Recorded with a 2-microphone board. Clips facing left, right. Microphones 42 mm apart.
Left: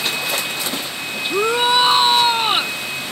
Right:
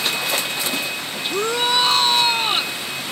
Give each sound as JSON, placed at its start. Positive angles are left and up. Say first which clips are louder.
{"t": 1.3, "sound": "a shout", "louder": "left 4 dB", "side_deg": 20}